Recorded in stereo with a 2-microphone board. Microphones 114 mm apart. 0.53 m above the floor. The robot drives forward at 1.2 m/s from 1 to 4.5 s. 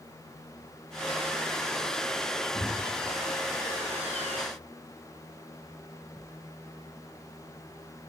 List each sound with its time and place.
2.5 s a thud: 15° left (ahead or behind), 4.5 m